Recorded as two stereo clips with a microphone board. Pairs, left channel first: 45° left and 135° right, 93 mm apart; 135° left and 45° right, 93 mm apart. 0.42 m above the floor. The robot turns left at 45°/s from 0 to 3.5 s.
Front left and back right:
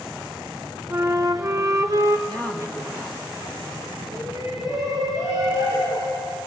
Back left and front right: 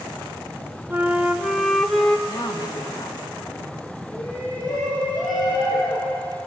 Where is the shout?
175° left, 8 m.